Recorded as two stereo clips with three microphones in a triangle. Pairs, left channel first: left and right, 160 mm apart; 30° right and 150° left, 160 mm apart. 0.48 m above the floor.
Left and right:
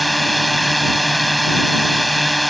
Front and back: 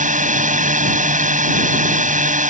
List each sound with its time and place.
0.0 s a drone: straight behind